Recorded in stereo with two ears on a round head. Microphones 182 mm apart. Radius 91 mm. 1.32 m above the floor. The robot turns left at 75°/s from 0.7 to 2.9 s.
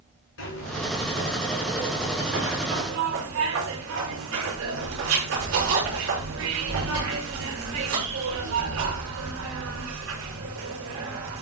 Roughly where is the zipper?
Ahead left.